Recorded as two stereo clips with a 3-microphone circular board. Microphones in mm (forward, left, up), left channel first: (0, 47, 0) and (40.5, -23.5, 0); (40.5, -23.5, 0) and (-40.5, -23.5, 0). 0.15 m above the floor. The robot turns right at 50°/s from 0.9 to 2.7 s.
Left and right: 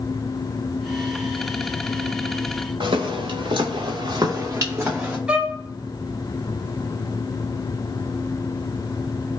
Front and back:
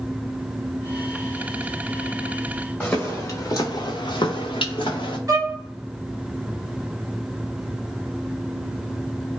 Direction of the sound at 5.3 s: 135° right.